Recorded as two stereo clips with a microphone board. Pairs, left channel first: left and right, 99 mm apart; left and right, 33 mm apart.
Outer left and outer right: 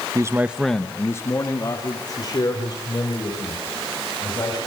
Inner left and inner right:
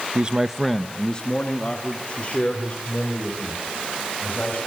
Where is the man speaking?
35° right (ahead or behind), 0.9 m; by 4.6 s 45° left (ahead or behind), 6 m.